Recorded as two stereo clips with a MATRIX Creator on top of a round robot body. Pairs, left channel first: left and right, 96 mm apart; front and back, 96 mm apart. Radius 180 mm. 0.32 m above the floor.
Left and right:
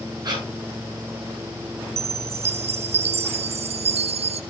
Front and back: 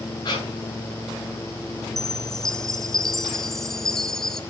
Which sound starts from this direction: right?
A chime, at 2.0 s.